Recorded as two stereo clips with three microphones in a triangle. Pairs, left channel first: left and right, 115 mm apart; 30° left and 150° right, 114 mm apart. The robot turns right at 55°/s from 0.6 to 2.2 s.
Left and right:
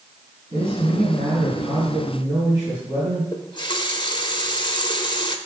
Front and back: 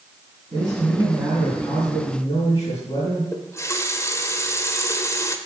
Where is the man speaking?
110° right, 4 m; by 3.2 s 25° right, 4 m.